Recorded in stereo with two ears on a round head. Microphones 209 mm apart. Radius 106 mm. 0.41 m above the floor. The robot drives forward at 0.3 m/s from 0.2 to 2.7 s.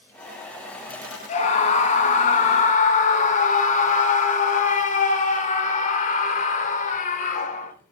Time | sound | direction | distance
1.3 | a scream | 30° left (ahead or behind) | 1.6 m